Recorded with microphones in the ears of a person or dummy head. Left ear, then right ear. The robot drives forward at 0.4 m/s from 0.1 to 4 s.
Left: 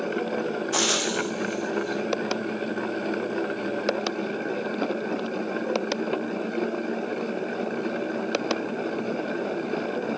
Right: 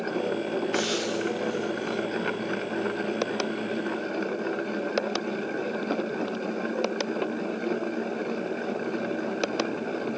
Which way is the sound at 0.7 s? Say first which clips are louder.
Left 6 dB; 45° left (ahead or behind).